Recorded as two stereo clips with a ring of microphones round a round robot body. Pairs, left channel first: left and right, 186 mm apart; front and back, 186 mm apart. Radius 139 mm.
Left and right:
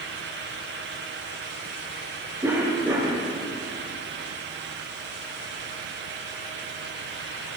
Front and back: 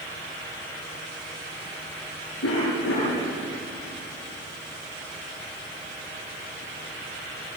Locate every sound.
2.4 s a cough: 15° right, 7 m